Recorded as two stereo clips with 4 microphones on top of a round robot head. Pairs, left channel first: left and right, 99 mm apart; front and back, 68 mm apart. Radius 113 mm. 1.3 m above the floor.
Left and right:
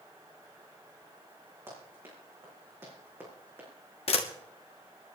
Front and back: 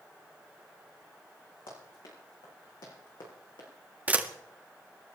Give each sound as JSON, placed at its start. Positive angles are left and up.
{"t": 1.7, "sound": "running footsteps", "azimuth_deg": -20, "distance_m": 6.0}
{"t": 4.1, "sound": "a camera shutter", "azimuth_deg": 110, "distance_m": 1.7}